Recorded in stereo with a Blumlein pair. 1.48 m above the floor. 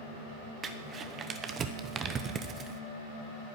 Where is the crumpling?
25° right, 0.9 m.